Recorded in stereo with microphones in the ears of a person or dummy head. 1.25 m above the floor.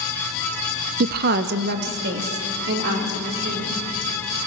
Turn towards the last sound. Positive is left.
turn(degrees=-60)  # may be behind; listen again after turning